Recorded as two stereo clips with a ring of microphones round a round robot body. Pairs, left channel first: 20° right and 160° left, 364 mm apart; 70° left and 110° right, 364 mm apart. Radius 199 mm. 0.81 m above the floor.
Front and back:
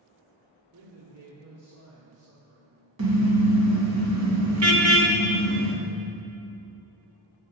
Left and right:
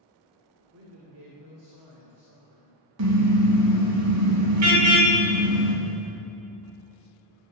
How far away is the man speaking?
About 2.5 m.